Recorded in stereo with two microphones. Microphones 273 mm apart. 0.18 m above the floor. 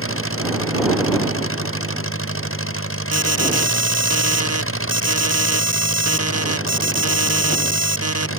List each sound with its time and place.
0.0 s an engine running: 50° left (ahead or behind)
3.1 s an alarm: 65° right (ahead or behind)